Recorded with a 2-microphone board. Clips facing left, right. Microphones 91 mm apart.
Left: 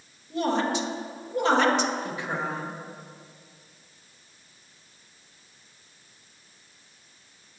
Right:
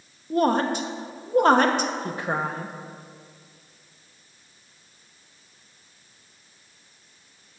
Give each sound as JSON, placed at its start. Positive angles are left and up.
{"t": 0.3, "sound": "a woman speaking", "side_deg": -45, "distance_m": 0.9}